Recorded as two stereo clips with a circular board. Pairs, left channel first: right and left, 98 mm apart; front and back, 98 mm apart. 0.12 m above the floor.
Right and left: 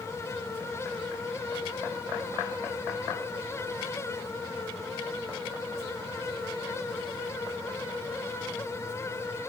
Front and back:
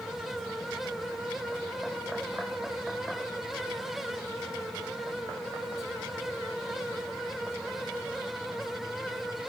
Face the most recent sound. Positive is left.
No sound to turn to.